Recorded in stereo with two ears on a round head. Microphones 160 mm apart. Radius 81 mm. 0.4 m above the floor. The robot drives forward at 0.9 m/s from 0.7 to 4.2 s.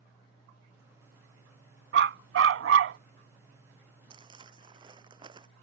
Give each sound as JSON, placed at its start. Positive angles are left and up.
{"t": 1.9, "sound": "a dog barking", "side_deg": -65}
{"t": 4.1, "sound": "crumpling", "side_deg": -30}